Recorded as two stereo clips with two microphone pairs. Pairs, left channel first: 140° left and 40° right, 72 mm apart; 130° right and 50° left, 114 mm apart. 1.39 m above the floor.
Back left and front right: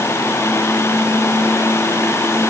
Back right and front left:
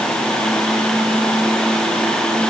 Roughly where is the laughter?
No laughter in this recording.